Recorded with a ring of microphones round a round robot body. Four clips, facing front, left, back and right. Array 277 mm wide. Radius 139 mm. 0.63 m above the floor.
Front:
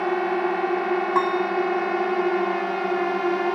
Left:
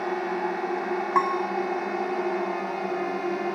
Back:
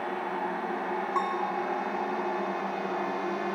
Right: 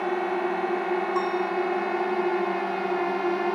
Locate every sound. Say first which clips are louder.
0.0 s a drone: right 2 dB, front 9 dB; 15° right; by 3.6 s 20° right
1.1 s a piano: left 1 dB, front 6 dB; 55° left